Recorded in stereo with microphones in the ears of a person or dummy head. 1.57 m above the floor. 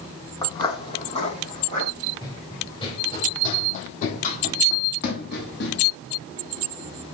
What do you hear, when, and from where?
0.4 s footsteps: 20° left (ahead or behind), 4 m; by 1.9 s 40° left (ahead or behind), 5 m
2.2 s running footsteps: 20° left (ahead or behind), 3.5 m; by 5.8 s 60° left (ahead or behind), 3 m